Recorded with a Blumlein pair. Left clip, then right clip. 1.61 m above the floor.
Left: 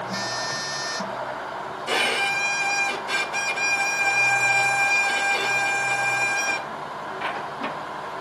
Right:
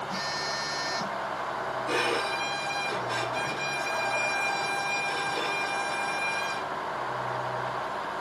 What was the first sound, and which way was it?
A phone buzzing, 60° left.